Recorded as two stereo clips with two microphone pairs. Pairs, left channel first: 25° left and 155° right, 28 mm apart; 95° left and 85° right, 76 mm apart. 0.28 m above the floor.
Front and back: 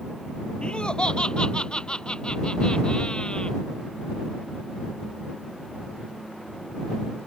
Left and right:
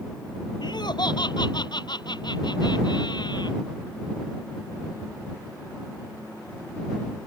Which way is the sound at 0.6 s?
80° left.